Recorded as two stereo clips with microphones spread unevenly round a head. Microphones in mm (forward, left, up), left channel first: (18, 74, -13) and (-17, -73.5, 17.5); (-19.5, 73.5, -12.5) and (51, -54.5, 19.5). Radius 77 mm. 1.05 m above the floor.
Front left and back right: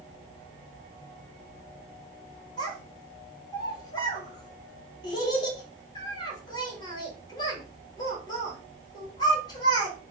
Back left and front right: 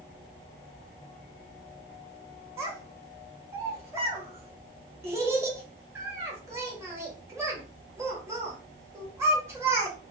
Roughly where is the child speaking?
Ahead.